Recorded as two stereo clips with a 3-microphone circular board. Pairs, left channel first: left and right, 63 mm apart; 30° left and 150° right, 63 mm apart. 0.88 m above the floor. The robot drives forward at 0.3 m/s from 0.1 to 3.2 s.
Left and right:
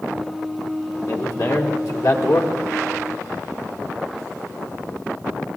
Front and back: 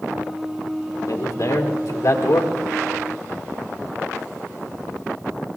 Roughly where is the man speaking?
Ahead left.